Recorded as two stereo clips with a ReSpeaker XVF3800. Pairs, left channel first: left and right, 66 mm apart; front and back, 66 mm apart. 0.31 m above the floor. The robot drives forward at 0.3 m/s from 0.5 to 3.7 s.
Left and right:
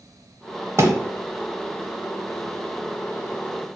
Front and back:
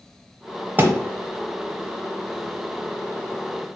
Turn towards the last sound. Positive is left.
turn(degrees=-160)